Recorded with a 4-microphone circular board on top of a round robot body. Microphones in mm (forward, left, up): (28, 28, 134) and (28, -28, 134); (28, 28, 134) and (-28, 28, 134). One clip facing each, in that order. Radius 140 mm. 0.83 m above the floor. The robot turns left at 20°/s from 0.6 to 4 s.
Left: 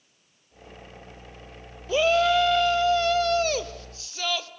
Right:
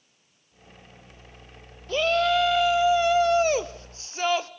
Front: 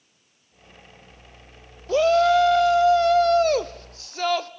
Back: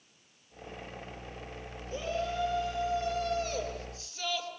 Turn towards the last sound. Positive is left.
turn(degrees=-35)